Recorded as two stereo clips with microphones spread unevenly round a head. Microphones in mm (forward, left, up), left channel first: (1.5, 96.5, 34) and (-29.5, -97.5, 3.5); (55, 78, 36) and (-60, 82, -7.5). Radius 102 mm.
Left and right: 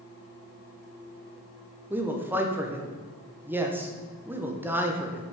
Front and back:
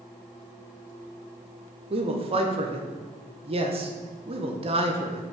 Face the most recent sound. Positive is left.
turn(degrees=-175)